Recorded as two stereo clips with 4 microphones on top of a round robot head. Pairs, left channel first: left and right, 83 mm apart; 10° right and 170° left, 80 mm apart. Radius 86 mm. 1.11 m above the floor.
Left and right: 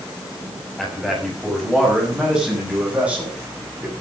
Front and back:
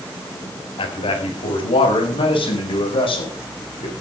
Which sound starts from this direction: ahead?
A man speaking, at 0.8 s.